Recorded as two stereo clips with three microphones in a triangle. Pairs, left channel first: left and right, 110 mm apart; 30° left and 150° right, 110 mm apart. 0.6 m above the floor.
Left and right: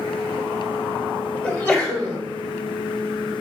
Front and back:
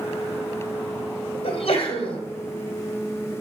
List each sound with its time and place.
1.4 s a sneeze: 15° left, 2.5 m